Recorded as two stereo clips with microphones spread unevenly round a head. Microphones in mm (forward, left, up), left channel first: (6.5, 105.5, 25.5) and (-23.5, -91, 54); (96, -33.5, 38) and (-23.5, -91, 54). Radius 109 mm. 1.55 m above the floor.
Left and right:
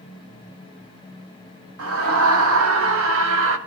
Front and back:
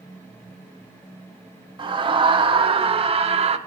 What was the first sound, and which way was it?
A scream, 105° right.